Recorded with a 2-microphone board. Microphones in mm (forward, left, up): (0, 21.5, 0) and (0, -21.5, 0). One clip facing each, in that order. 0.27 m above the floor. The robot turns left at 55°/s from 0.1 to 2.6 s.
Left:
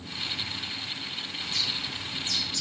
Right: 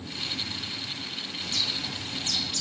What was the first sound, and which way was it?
A bird, 55° right (ahead or behind).